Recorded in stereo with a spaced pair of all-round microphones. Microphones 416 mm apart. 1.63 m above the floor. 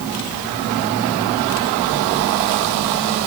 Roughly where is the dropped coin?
No dropped coin in this recording.